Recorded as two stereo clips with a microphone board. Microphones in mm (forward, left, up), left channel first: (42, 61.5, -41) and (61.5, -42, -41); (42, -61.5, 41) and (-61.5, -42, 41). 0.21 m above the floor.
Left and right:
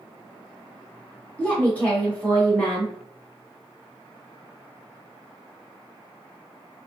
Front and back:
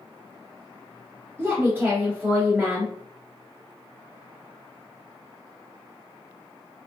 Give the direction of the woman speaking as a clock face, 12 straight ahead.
7 o'clock.